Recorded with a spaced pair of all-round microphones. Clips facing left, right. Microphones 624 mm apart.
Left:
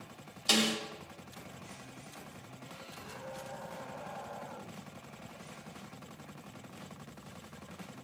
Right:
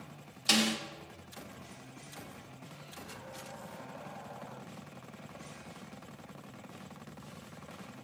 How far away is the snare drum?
About 1.4 m.